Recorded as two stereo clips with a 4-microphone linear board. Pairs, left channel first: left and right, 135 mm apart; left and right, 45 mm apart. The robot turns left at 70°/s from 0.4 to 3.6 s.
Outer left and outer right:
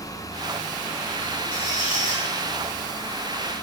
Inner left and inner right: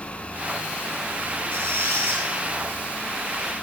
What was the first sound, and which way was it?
A squeak, 65° right.